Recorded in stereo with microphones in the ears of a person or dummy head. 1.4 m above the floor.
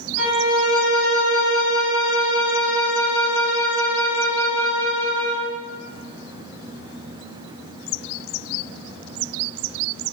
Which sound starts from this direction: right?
A violin, at 0.2 s.